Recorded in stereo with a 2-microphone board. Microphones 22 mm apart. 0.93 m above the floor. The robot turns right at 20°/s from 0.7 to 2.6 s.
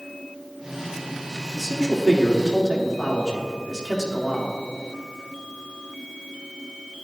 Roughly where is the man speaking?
Centre.